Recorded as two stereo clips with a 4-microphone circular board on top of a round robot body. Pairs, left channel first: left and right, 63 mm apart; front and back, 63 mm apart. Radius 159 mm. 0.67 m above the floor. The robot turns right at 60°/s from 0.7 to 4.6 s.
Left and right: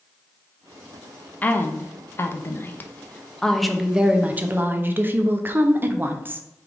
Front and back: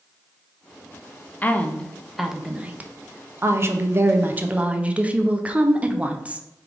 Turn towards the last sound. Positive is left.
turn(degrees=-120)